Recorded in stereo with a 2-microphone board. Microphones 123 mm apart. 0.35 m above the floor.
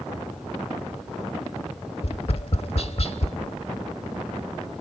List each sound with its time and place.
2.0 s tapping: 55° left (ahead or behind), 0.9 m